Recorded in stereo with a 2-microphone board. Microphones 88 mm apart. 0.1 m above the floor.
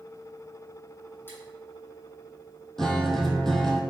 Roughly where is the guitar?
Centre.